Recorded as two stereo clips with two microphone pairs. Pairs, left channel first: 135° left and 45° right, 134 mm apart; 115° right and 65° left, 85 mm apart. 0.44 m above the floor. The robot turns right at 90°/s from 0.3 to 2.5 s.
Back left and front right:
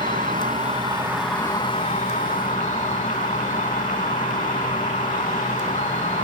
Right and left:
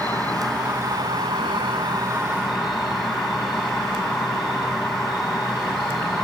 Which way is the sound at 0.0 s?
45° right.